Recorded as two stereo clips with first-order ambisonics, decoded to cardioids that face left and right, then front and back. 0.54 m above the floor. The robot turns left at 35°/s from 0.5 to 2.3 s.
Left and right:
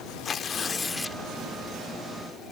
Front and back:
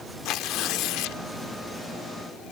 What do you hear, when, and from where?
0.2 s tearing paper: 30° left; by 1.2 s 5° left